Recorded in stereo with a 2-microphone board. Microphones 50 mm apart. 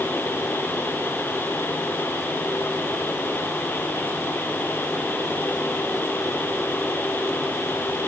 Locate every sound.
Only background noise.